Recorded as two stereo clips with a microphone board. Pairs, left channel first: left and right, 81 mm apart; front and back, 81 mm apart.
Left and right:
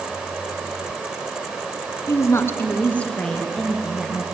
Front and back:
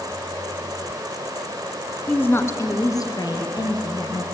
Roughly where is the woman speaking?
Ahead left.